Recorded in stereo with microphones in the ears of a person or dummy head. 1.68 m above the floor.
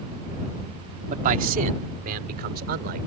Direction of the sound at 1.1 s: 45° right (ahead or behind).